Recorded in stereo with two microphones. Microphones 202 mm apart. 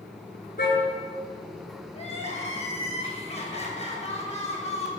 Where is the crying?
30° left (ahead or behind), 8 m.